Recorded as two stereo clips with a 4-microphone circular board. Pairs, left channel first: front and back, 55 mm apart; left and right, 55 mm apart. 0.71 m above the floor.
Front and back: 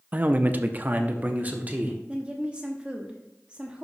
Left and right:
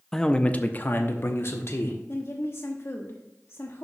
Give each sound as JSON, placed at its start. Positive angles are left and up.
{"t": 0.1, "sound": "a man speaking", "azimuth_deg": 165, "distance_m": 0.5}
{"t": 2.1, "sound": "a woman speaking", "azimuth_deg": 110, "distance_m": 0.9}